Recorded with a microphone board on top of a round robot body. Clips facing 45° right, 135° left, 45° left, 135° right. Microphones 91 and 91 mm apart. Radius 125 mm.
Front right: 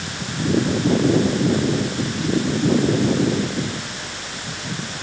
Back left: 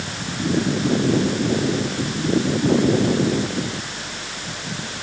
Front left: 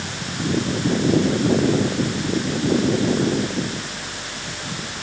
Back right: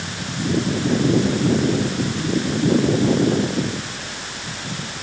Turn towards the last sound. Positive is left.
No sound to turn to.